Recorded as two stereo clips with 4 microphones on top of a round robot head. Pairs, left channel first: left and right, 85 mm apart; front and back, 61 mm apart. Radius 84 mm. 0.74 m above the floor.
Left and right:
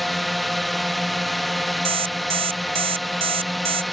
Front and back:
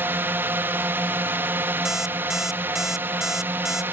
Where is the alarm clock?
95° right.